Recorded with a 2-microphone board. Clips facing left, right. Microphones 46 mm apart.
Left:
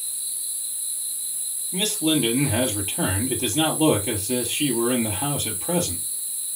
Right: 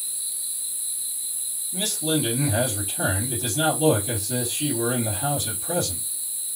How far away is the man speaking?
About 4 m.